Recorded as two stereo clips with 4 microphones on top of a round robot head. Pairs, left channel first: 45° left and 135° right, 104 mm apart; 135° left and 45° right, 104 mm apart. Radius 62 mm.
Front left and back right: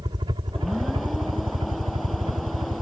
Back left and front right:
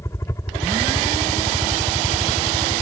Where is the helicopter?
170° right; by 2.8 s 165° right.